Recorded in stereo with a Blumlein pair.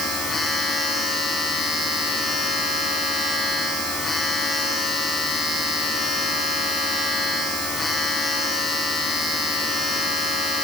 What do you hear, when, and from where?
0.0 s a machine running: 10° left, 9 m